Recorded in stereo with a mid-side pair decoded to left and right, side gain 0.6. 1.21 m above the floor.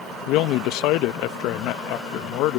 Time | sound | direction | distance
0.3 | a man speaking | 70° left | ?